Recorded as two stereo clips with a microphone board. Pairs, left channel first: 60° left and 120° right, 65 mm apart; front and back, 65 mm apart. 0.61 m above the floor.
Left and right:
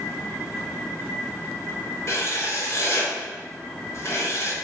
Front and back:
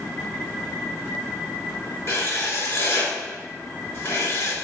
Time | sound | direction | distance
2.1 | writing | 30° left | 2 m